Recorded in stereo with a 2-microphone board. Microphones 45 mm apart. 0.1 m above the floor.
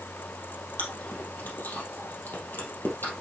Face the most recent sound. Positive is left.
turn(degrees=55)  # may be behind; listen again after turning